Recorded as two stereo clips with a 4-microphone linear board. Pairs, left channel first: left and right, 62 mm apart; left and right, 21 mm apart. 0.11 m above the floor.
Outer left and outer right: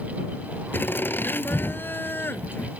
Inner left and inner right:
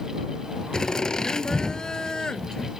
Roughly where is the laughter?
Left.